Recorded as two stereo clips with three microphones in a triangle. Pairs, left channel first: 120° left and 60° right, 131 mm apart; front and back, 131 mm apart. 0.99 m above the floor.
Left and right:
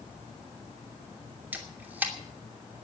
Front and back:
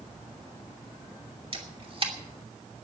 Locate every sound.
1.5 s a camera shutter: 135° right, 2.5 m